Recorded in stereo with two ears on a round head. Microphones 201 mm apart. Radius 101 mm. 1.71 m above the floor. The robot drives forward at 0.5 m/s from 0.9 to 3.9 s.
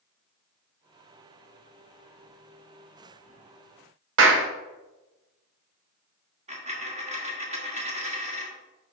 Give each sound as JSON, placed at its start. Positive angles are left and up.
{"t": 4.2, "sound": "a clap", "side_deg": -55, "distance_m": 1.0}
{"t": 6.5, "sound": "a dropped coin", "side_deg": -30, "distance_m": 1.3}